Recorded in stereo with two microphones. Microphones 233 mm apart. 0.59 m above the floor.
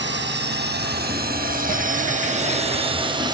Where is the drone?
55° right (ahead or behind); by 3.4 s 20° right (ahead or behind).